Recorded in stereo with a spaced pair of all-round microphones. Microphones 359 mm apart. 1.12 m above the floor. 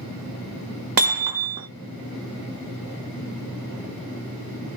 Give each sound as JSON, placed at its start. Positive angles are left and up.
{"t": 1.0, "sound": "hammering", "side_deg": -65, "distance_m": 0.7}